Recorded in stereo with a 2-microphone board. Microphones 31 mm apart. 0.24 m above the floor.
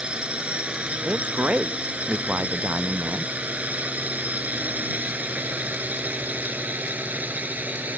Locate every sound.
0.0 s a drone: 40° right (ahead or behind); by 8.0 s 65° right (ahead or behind)
1.0 s a man speaking: 65° right (ahead or behind)